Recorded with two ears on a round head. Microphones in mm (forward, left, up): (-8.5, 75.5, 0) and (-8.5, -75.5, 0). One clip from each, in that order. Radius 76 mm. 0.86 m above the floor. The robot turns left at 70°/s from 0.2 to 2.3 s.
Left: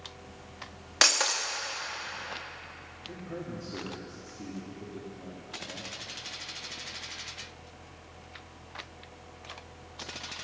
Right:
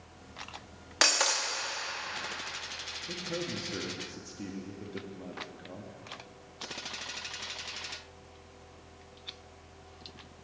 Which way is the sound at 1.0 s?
15° left.